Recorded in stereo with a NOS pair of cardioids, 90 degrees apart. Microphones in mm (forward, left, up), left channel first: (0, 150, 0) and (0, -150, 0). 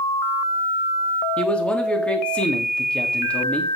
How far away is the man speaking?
About 3.5 m.